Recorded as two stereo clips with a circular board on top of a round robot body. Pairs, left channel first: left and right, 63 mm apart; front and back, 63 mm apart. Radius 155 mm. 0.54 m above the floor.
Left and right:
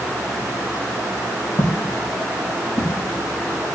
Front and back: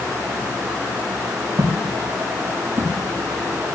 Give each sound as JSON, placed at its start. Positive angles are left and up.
{"t": 1.6, "sound": "footsteps", "azimuth_deg": 130, "distance_m": 5.0}